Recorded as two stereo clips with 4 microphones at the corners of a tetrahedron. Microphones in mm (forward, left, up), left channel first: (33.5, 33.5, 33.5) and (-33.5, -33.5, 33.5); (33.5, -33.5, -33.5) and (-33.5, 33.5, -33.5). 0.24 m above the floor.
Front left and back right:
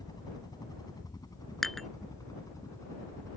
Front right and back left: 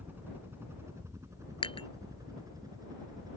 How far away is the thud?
No thud in this recording.